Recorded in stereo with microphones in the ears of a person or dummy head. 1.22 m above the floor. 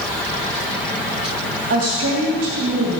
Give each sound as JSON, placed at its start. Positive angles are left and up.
{"t": 1.7, "sound": "a woman speaking", "side_deg": -45, "distance_m": 2.5}